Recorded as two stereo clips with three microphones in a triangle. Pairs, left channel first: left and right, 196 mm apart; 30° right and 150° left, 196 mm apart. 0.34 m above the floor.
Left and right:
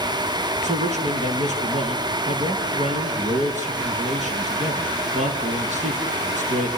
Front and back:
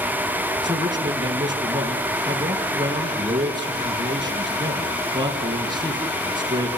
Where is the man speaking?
145° right, 5 m.